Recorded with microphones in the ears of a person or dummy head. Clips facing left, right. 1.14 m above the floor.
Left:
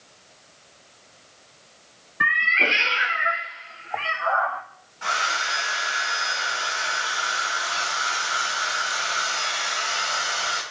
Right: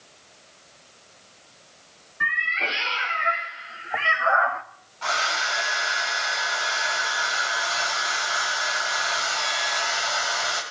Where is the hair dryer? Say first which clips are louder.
Right 1 dB; 25° left (ahead or behind), 5.5 m.